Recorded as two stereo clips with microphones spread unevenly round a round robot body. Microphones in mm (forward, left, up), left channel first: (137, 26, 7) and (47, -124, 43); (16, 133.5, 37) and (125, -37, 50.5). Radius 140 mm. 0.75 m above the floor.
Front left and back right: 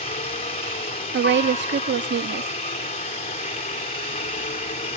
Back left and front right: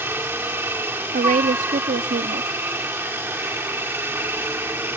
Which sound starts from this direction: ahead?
A helicopter, at 0.0 s.